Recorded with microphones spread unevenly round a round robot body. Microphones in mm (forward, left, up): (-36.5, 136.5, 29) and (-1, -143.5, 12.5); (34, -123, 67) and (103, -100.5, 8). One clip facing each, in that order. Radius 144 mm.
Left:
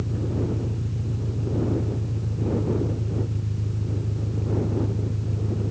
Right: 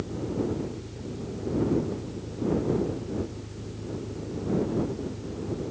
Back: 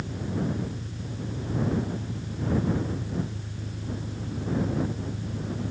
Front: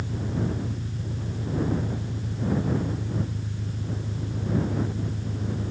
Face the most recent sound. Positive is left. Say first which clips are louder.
# left 1 dB, front 1 dB
turn(degrees=75)